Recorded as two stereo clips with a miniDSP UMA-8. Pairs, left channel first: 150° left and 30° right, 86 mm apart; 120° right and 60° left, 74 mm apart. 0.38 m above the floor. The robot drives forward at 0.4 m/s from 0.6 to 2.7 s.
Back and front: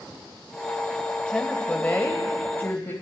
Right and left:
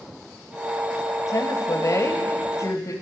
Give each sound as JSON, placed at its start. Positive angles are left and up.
{"t": 1.3, "sound": "a woman speaking", "azimuth_deg": -135, "distance_m": 1.5}